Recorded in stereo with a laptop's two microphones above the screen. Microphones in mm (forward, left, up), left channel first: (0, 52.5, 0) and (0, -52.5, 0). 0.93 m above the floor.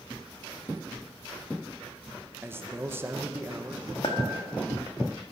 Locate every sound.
2.4 s a man speaking: 25° right (ahead or behind), 0.6 m
4.0 s a clink: 60° left (ahead or behind), 1.1 m